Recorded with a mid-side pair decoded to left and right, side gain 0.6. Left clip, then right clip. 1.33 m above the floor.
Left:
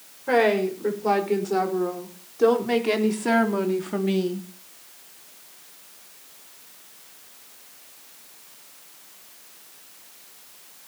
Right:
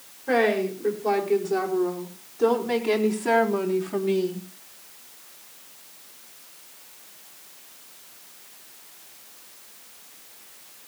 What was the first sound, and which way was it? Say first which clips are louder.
A woman speaking: left 2 dB; 25° left.